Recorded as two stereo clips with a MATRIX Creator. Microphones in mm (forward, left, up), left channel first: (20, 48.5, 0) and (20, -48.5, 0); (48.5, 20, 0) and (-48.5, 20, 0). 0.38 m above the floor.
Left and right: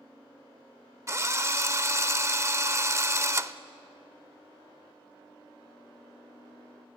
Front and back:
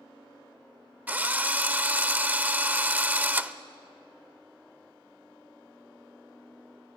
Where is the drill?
120° right, 0.6 m.